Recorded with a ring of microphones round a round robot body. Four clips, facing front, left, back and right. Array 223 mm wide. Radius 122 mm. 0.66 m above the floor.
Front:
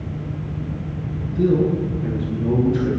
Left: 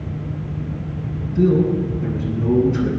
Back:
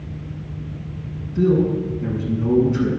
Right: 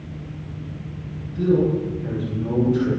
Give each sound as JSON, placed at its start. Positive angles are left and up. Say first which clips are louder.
{"t": 1.4, "sound": "a man speaking", "louder": "left 2 dB, even", "azimuth_deg": 135, "distance_m": 7.0}